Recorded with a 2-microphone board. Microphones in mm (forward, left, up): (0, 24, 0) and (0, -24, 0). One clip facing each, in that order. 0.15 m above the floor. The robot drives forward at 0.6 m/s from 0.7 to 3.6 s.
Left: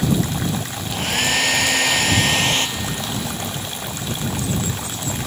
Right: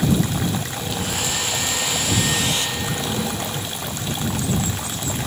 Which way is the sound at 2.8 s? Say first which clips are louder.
Right 1 dB; 5° right (ahead or behind).